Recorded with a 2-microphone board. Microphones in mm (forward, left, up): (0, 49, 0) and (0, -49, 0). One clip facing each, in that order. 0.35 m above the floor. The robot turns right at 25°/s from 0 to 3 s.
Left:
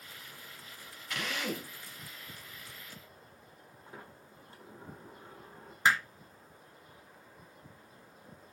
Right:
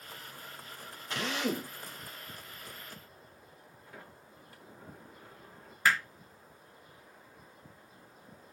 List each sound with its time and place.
1.1 s a drill: 30° right (ahead or behind), 2 m; by 1.7 s 20° right (ahead or behind), 2 m
3.9 s a sliding door: 30° left (ahead or behind), 3.5 m
5.8 s hammering: 25° left (ahead or behind), 1.9 m